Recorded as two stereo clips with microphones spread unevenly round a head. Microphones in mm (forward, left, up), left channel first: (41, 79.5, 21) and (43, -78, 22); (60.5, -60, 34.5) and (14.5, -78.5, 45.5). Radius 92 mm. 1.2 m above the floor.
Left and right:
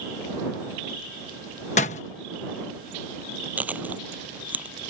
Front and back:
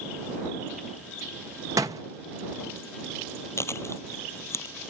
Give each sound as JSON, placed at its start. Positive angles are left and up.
{"t": 1.8, "sound": "a door slam", "azimuth_deg": 145}
{"t": 3.6, "sound": "chewing", "azimuth_deg": -10}